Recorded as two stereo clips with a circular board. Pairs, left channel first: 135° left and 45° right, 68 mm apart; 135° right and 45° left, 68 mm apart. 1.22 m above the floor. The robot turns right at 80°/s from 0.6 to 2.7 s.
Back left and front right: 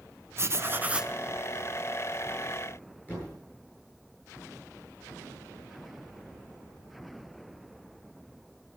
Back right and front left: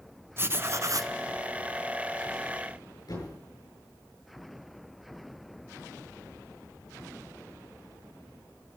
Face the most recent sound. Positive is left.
turn(degrees=-165)